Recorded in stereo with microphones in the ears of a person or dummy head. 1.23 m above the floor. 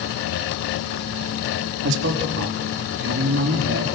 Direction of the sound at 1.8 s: 65° right (ahead or behind).